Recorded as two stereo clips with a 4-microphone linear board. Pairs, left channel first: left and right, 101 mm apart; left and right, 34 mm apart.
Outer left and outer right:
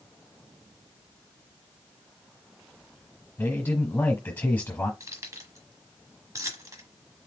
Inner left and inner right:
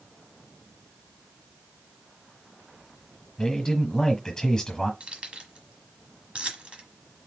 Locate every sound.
3.4 s a man speaking: 15° left (ahead or behind), 1.2 m
5.0 s keys jangling: 30° right (ahead or behind), 1.2 m